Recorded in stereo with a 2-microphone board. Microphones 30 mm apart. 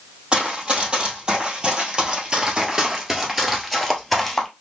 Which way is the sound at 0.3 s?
30° right (ahead or behind).